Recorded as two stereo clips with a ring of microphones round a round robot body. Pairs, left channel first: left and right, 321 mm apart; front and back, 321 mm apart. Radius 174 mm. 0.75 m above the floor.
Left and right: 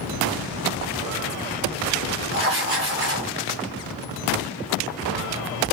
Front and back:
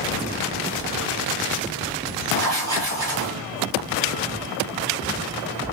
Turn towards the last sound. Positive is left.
turn(degrees=-140)